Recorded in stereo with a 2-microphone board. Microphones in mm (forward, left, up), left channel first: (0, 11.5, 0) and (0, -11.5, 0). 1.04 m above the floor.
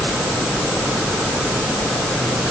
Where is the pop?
I don't hear a pop.